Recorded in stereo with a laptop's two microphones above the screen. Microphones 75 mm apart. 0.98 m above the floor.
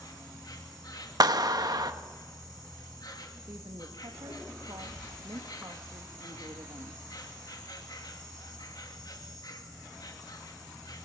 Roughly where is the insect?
Left.